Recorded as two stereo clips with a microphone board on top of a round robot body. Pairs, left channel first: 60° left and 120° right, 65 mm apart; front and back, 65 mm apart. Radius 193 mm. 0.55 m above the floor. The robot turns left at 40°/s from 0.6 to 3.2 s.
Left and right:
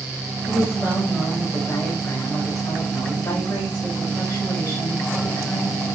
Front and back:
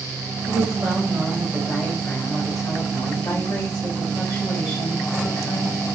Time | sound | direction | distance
0.5 | a woman speaking | 110° left | 3.5 m